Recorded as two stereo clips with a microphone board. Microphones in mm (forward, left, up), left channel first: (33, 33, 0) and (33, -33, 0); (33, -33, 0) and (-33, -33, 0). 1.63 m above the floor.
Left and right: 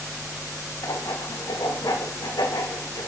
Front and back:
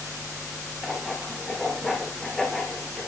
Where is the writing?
85° left, 2 m.